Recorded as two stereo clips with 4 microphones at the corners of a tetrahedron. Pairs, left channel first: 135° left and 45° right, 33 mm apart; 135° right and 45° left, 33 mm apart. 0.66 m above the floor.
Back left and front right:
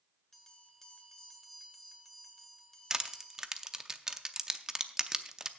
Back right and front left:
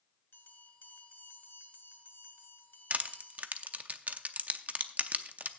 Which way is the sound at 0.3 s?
140° right.